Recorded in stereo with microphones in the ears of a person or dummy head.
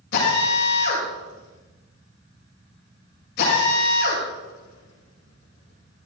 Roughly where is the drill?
Left.